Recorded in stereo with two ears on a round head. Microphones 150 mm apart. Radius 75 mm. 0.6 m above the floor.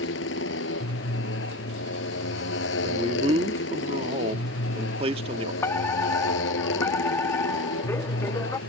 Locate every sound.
0.0 s a motorcycle: 85° left
2.8 s a man speaking: 35° right (ahead or behind)
5.6 s a fire alarm: 15° left (ahead or behind)